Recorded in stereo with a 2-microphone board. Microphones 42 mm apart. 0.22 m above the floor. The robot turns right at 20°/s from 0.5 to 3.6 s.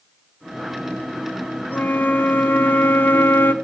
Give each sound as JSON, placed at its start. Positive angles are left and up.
{"t": 1.7, "sound": "a flute", "azimuth_deg": 60, "distance_m": 0.8}